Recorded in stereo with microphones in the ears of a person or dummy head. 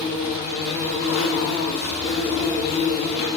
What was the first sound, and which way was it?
An insect, 55° left (ahead or behind).